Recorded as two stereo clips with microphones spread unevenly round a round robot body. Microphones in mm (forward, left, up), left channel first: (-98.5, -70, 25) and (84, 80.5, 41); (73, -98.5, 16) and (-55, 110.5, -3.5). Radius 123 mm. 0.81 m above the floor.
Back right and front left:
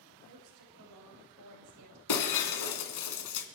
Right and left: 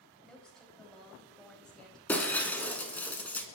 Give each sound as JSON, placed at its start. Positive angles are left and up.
{"t": 0.2, "sound": "a woman speaking", "azimuth_deg": 30, "distance_m": 4.0}
{"t": 2.1, "sound": "breaking glass", "azimuth_deg": -140, "distance_m": 1.9}